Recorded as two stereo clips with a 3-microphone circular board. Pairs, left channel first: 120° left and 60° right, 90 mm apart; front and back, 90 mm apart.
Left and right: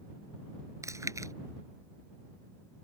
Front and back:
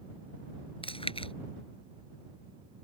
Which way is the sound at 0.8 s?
5° right.